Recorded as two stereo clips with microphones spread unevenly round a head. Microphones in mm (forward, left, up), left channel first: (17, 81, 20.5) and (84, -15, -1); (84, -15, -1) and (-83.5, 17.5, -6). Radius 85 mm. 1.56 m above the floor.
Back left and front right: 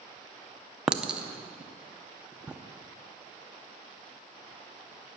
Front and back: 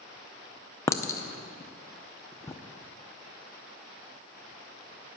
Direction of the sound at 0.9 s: 40° left.